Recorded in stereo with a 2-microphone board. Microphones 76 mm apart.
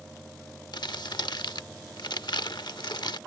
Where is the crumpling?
70° left (ahead or behind).